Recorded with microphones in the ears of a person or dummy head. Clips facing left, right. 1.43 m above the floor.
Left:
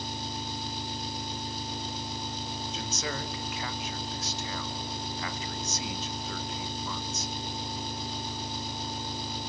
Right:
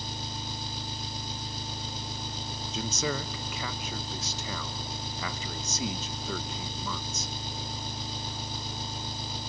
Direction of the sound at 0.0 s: 75° right (ahead or behind).